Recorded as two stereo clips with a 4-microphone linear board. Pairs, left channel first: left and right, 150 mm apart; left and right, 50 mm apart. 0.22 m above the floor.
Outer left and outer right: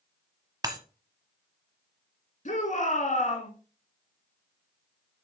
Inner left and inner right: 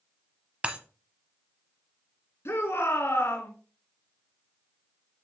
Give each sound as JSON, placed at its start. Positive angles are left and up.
{"t": 0.6, "sound": "breaking glass", "side_deg": -25, "distance_m": 0.9}
{"t": 2.5, "sound": "a shout", "side_deg": 60, "distance_m": 2.5}